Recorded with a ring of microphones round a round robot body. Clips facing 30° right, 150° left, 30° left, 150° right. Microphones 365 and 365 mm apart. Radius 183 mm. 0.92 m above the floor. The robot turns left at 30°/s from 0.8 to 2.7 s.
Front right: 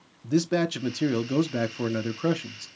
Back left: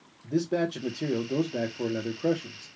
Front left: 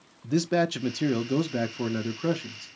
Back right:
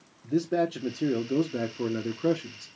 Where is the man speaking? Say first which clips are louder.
Front right 3 dB, front left 1 dB; 10° right, 0.6 m; by 2.7 s 65° right, 0.6 m.